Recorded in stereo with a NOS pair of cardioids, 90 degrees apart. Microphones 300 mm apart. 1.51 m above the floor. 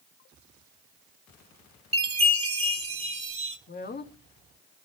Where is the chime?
20° right, 3 m.